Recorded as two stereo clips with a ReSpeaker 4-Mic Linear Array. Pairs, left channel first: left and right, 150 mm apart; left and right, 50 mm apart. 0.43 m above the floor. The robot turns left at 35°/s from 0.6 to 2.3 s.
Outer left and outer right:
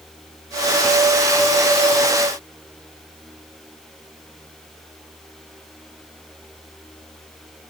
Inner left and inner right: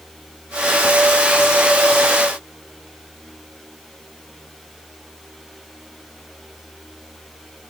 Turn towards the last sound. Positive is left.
No sound to turn to.